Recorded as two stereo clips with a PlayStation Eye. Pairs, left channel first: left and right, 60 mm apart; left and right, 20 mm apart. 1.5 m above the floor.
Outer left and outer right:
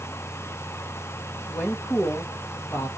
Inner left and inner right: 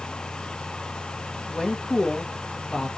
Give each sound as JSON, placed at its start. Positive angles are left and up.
{"t": 1.5, "sound": "a woman speaking", "side_deg": 40, "distance_m": 1.0}